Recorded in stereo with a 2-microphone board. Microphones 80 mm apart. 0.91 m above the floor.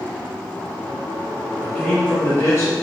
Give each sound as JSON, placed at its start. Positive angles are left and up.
{"t": 1.6, "sound": "a man speaking", "side_deg": 5, "distance_m": 1.4}